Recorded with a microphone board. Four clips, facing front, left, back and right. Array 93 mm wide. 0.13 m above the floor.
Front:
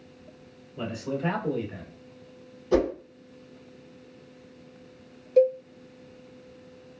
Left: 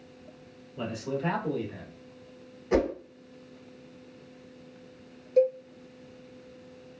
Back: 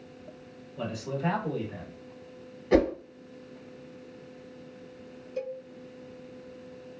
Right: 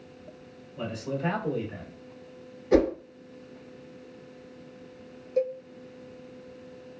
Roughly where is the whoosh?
Behind.